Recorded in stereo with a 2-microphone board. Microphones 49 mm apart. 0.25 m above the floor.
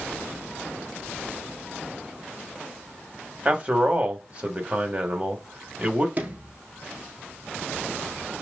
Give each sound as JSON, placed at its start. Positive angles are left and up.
{"t": 3.5, "sound": "a man speaking", "side_deg": -30, "distance_m": 1.0}
{"t": 6.2, "sound": "a sliding door", "side_deg": -35, "distance_m": 0.7}